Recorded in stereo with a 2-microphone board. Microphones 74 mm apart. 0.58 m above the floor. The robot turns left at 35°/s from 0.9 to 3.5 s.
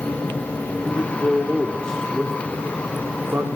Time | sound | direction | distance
0.8 | a man speaking | 35° left (ahead or behind) | 1.8 m